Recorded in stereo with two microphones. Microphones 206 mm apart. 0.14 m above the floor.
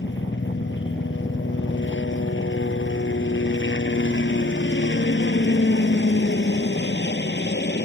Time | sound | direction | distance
0.0 | a helicopter | 60° left (ahead or behind) | ?